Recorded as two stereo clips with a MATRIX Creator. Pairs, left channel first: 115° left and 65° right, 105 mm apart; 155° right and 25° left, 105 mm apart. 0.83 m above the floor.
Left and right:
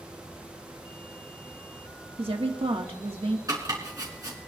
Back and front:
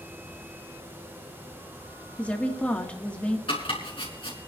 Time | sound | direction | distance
2.2 | a woman speaking | 80° right | 1.9 m
3.5 | chopping | 125° right | 4.5 m